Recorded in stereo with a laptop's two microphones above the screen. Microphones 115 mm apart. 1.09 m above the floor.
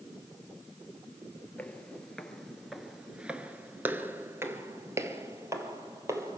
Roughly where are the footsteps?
Centre.